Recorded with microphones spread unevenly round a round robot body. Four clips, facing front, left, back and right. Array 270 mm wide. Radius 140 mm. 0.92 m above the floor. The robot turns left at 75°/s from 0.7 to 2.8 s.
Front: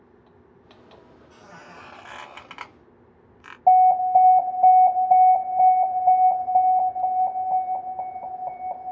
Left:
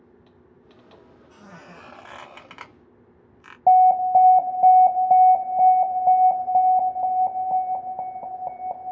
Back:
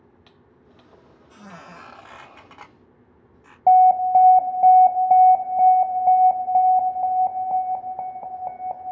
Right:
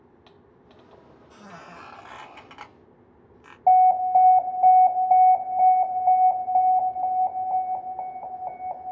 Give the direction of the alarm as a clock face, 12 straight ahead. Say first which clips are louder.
Left 2 dB, back 2 dB; 8 o'clock.